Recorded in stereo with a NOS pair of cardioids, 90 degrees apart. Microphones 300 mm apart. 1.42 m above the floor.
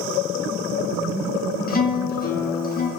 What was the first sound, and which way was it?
A guitar, 30° left.